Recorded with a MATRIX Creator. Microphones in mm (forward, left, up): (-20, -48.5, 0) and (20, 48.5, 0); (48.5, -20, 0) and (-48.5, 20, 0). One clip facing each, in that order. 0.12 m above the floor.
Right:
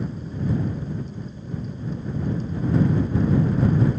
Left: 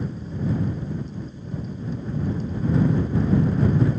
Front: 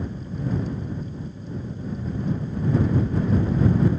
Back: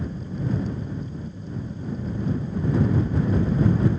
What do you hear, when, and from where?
Only background noise.